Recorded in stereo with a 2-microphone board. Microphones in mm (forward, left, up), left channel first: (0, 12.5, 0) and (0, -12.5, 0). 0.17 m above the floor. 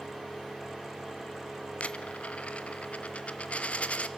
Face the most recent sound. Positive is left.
turn(degrees=65)  # may be behind; listen again after turning